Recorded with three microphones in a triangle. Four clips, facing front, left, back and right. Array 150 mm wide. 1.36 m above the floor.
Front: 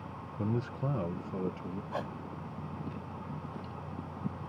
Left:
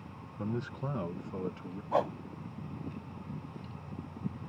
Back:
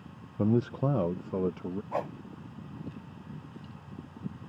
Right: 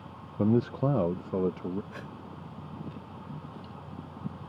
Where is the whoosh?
105° left.